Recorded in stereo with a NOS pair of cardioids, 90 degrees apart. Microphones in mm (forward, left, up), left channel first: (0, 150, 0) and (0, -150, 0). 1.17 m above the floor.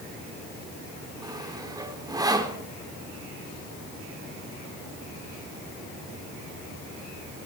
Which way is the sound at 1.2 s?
15° right.